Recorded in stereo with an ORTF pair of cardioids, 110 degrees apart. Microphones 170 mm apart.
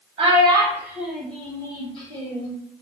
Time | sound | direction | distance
0.2 | a child speaking | 40° right | 1.0 m